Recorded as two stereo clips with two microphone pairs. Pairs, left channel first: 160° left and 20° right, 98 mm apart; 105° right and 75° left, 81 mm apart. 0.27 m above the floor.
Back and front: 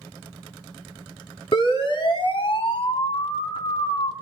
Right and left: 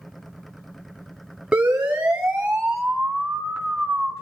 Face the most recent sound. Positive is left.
turn(degrees=155)